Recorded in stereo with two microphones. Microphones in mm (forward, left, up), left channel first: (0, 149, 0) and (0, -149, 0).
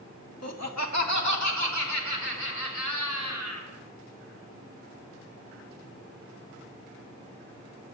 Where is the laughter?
55° left (ahead or behind), 1.2 m; by 3.7 s 65° left (ahead or behind), 5 m.